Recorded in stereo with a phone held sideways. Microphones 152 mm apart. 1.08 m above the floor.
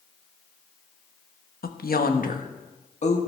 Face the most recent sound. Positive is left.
turn(degrees=45)  # may be behind; listen again after turning